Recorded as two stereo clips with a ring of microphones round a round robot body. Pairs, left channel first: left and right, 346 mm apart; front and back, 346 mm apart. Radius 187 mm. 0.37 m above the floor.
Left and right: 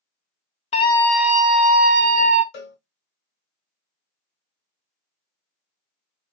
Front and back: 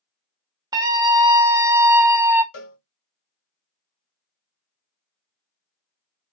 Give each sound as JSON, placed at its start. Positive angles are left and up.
{"t": 0.7, "sound": "a scream", "azimuth_deg": 120, "distance_m": 0.8}
{"t": 2.5, "sound": "a cowbell", "azimuth_deg": 40, "distance_m": 1.5}